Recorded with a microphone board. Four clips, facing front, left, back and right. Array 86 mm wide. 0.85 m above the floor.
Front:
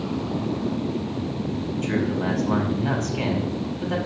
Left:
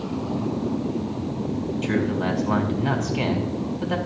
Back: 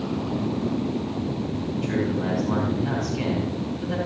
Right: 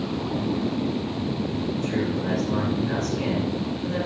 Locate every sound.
1.8 s a man speaking: 70° left, 6 m